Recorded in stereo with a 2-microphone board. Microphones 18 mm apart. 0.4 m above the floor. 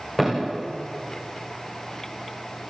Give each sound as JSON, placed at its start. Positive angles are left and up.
{"t": 0.2, "sound": "a thud", "side_deg": 10, "distance_m": 6.5}